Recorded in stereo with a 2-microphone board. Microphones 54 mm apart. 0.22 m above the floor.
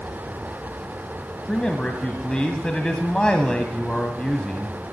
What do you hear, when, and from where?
1.5 s a man speaking: 15° left (ahead or behind), 1.2 m